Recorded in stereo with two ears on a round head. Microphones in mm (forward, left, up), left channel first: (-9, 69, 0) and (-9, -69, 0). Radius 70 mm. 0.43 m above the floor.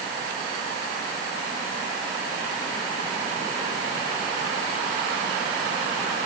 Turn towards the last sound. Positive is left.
No sound to turn to.